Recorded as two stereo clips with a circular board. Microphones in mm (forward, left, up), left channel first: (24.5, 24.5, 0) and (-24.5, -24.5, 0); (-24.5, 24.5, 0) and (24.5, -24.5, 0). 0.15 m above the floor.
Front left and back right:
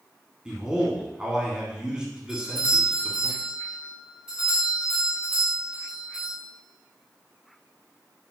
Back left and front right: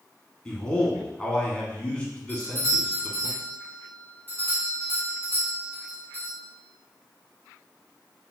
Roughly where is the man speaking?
Behind.